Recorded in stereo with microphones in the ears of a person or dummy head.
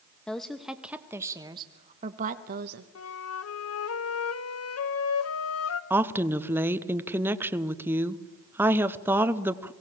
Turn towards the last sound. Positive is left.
turn(degrees=-15)  # may be behind; listen again after turning